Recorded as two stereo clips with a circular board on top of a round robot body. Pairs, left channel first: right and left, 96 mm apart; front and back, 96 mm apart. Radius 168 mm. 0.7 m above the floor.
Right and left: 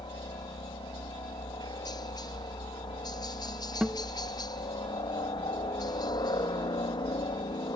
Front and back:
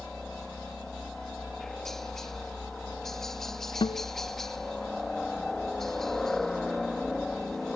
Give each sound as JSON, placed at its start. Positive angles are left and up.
{"t": 0.0, "sound": "a helicopter", "azimuth_deg": -85}
{"t": 3.8, "sound": "a guitar", "azimuth_deg": 5}